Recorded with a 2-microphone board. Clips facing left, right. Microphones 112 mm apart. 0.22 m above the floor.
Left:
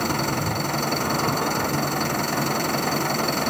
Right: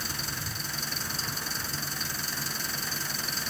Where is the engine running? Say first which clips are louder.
Left 15 dB; 65° left (ahead or behind).